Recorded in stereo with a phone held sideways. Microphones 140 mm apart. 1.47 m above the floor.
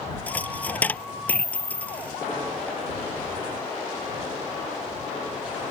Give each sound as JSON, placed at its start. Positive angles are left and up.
{"t": 0.3, "sound": "a dropped coin", "side_deg": 10}